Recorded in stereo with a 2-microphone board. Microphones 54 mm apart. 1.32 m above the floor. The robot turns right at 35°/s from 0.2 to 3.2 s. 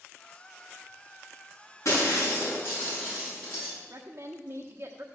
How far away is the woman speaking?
About 0.9 m.